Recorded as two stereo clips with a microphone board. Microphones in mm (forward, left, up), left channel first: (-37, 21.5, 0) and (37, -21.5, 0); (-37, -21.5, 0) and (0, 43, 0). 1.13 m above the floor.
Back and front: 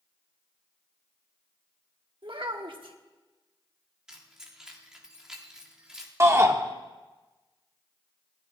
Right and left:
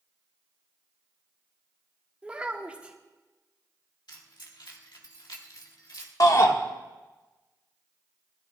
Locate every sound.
2.2 s a child speaking: 15° right, 1.5 m
4.1 s keys jangling: 115° right, 2 m
6.2 s a shout: 90° right, 1.5 m